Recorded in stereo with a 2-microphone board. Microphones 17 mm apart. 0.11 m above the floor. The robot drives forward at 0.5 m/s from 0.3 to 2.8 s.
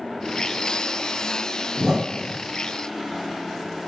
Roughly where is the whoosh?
Right.